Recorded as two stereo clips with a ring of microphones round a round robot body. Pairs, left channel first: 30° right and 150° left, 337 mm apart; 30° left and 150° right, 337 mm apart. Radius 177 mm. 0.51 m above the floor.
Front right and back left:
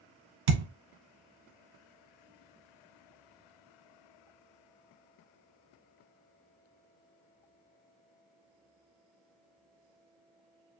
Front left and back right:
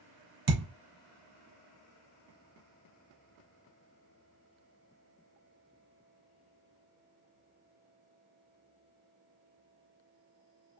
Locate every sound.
0.5 s a thud: 160° left, 1.6 m